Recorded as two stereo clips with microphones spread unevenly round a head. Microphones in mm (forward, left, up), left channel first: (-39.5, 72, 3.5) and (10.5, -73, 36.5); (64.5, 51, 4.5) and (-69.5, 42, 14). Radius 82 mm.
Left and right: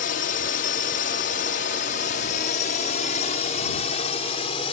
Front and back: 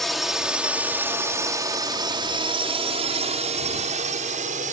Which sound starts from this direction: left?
A drone, at 0.0 s.